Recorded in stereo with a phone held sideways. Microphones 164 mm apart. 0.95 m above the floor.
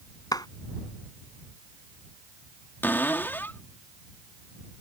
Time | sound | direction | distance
0.3 | a clap | 25° left (ahead or behind) | ?
2.8 | a cupboard door | 10° left (ahead or behind) | ?